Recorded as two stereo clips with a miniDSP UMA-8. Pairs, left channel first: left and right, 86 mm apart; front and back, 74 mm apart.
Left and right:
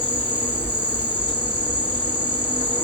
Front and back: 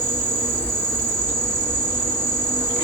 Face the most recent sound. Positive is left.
turn(degrees=140)